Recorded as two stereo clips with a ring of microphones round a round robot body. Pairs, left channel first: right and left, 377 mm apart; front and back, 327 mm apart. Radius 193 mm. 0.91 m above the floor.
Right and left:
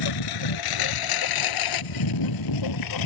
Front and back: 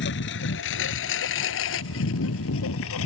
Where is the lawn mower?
60° right; by 3.1 s 55° right.